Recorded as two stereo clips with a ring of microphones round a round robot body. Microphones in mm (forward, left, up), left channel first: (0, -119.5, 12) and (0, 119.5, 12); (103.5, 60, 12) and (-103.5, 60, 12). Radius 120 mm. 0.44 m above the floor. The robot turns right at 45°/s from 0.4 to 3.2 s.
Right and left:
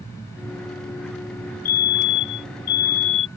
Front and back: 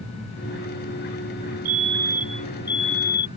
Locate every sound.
1.6 s a fire alarm: 120° right; by 3.3 s 50° right